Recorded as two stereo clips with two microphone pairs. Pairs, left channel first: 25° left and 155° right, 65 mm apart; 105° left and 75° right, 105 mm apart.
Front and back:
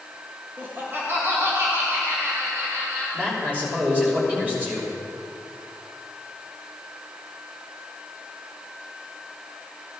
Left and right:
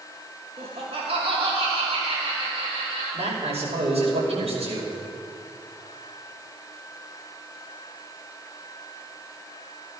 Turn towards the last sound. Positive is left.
turn(degrees=-90)